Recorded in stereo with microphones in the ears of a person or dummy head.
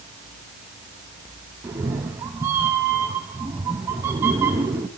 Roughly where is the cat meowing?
Centre.